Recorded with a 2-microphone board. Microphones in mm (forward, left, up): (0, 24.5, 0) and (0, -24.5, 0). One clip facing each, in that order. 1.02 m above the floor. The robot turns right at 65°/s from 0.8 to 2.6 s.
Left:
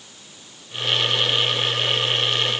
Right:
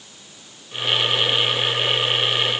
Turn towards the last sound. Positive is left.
No sound to turn to.